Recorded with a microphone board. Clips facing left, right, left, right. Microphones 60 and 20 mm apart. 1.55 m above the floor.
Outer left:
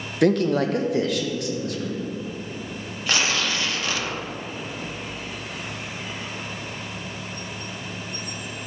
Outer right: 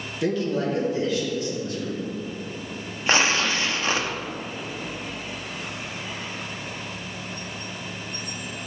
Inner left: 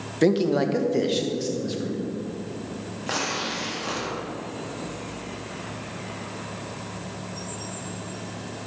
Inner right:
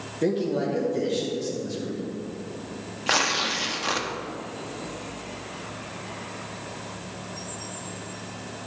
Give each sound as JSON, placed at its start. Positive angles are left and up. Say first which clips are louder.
{"t": 0.2, "sound": "a man speaking", "louder": "outer left 5 dB, inner left 4 dB", "side_deg": 60, "distance_m": 0.9}
{"t": 3.1, "sound": "tearing paper", "louder": "outer right 3 dB, inner right 5 dB", "side_deg": -30, "distance_m": 0.9}